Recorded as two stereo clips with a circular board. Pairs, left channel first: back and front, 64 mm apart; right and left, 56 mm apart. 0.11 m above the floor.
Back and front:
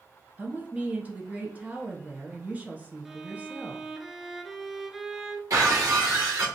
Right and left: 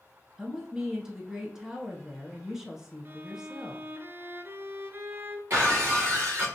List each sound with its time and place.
0.4 s a woman speaking: 25° left, 1.2 m
3.0 s a violin: 85° left, 0.5 m
5.5 s breaking glass: 40° left, 2 m